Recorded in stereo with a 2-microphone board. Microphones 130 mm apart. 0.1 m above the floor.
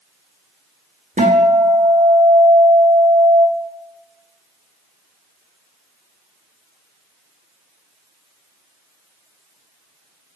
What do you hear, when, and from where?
1.2 s a guitar: 75° right (ahead or behind), 1.2 m